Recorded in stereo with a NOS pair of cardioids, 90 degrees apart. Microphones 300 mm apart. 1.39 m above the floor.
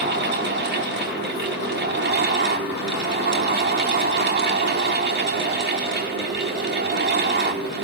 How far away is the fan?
About 5 m.